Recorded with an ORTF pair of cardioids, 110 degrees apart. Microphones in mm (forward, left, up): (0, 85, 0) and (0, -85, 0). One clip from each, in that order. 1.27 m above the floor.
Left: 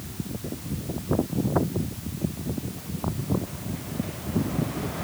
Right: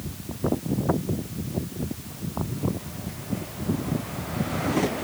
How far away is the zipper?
I don't hear a zipper.